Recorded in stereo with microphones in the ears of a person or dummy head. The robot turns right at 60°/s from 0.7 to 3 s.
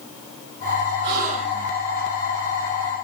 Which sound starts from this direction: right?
A gasp, at 1.0 s.